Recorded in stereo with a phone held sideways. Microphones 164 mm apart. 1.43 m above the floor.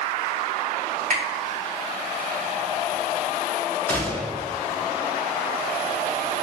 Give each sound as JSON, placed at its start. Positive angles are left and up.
{"t": 1.1, "sound": "a finger snap", "side_deg": -60, "distance_m": 1.4}
{"t": 3.9, "sound": "a gunshot", "side_deg": 10, "distance_m": 0.6}